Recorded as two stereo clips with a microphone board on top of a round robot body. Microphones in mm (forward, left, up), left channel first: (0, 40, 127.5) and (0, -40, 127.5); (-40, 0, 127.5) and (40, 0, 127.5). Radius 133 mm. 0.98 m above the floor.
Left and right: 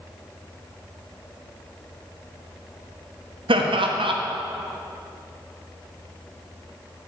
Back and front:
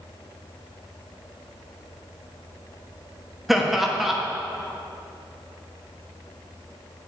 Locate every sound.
3.5 s laughter: 90° right, 1.3 m